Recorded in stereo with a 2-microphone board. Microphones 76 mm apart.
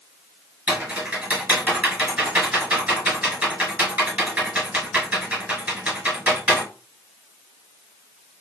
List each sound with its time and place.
0.7 s typing on a keyboard: 20° right (ahead or behind), 1.8 m